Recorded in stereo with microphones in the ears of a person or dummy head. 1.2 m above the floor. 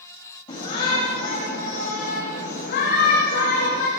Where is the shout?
25° left (ahead or behind), 5.5 m; by 3.9 s 75° left (ahead or behind), 4 m.